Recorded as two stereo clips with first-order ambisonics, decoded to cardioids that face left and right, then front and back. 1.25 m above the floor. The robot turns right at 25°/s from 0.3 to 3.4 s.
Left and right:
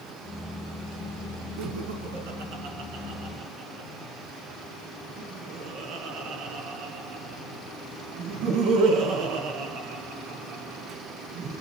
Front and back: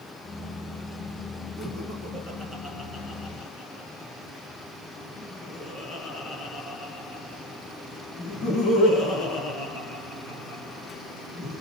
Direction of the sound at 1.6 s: 100° right.